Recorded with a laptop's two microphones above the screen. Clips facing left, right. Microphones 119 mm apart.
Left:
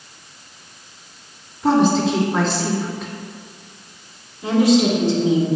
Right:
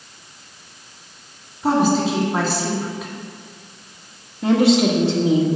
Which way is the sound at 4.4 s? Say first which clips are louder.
Even; 65° right (ahead or behind).